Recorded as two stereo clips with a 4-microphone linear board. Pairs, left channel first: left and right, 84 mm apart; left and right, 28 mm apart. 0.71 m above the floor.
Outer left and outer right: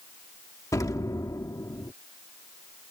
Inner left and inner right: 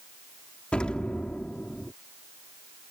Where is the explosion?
45° left (ahead or behind).